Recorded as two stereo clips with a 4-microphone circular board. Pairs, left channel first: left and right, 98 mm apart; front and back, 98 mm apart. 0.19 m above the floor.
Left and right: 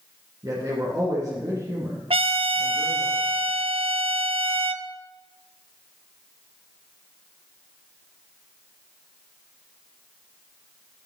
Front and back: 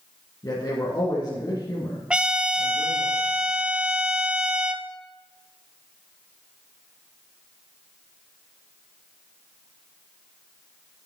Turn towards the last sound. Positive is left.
turn(degrees=-100)